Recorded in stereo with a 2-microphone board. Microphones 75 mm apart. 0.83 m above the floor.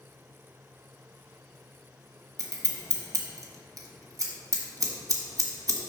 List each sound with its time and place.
2.4 s scissors: 50° right (ahead or behind), 1.3 m